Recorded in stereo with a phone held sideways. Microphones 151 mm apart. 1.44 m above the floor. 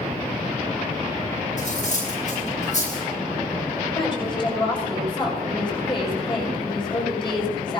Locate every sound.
1.6 s cutlery clinking: 50° left (ahead or behind), 9.5 m
4.0 s a woman speaking: 35° left (ahead or behind), 6 m